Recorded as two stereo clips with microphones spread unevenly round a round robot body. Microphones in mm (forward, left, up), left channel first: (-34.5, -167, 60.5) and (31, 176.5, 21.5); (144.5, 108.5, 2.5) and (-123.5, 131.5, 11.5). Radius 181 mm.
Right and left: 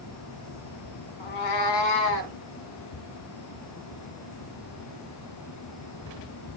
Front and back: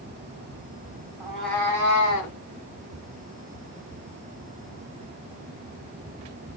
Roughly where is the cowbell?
No cowbell in this recording.